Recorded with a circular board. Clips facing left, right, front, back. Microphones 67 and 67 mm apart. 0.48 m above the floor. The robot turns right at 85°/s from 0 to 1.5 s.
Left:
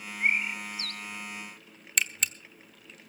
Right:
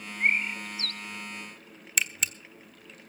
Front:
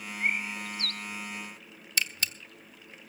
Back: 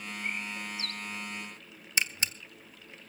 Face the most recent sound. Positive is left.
turn(degrees=-175)